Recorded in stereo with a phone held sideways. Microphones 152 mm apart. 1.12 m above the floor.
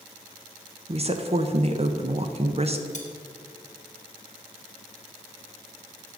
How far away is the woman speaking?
About 0.6 m.